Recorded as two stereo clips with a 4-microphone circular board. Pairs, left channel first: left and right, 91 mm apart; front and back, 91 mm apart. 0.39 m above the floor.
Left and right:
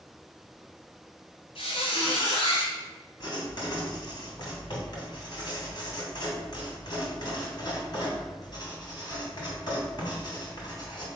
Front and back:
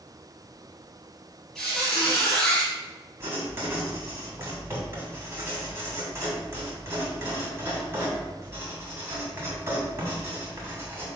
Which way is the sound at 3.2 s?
120° left.